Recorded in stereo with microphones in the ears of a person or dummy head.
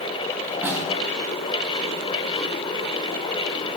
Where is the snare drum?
5° right (ahead or behind), 1.5 m.